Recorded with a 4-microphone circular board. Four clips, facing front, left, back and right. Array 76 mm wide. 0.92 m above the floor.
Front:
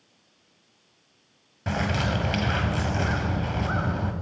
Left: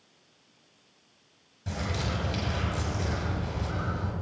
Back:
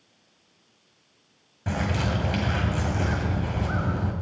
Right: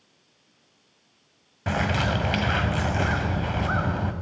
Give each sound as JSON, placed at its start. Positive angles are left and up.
{"t": 1.7, "sound": "a bird", "azimuth_deg": -75, "distance_m": 1.3}